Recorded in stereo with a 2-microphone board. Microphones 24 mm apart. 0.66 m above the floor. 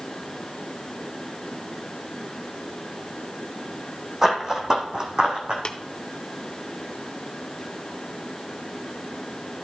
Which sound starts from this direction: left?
Tapping, at 5.7 s.